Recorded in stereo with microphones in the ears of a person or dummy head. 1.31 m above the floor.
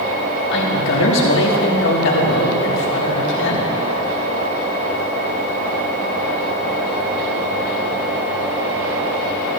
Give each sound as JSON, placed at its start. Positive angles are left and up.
{"t": 0.5, "sound": "a woman speaking", "side_deg": 65, "distance_m": 2.5}